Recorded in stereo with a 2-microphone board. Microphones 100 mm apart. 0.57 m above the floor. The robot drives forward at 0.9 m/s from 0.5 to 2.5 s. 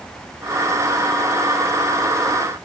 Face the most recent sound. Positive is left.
No sound to turn to.